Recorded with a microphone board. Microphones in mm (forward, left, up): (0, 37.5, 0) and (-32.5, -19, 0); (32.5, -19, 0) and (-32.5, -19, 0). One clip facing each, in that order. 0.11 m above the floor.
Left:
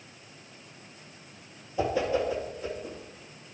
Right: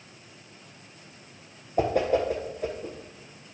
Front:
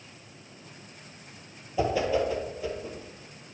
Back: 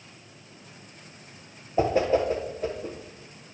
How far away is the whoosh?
About 1.3 m.